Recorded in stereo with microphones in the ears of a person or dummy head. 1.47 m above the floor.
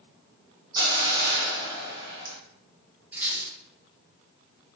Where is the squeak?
10° right (ahead or behind), 0.9 m.